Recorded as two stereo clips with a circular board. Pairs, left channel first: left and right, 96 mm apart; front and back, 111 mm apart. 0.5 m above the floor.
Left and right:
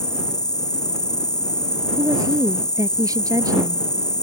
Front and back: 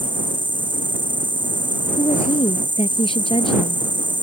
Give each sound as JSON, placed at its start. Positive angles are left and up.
{"t": 0.0, "sound": "an insect", "azimuth_deg": 135}
{"t": 2.0, "sound": "a woman speaking", "azimuth_deg": -40}